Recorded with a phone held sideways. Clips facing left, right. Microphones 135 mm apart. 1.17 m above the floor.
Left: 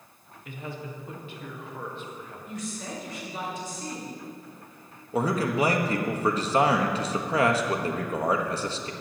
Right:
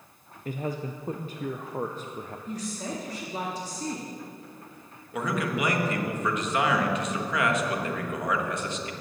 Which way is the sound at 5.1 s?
35° left (ahead or behind).